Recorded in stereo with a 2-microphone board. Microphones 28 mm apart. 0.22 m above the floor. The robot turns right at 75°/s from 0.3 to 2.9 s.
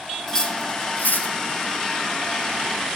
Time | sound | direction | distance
0.3 | cutlery clinking | 20° left (ahead or behind) | 3 m